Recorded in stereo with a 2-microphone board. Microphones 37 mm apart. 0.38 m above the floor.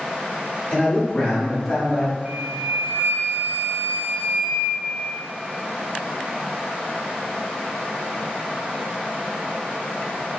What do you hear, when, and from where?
0.7 s a man speaking: 40° left (ahead or behind), 1.5 m; by 2.1 s 5° left (ahead or behind), 1.3 m
2.2 s a flute: 50° right (ahead or behind), 0.7 m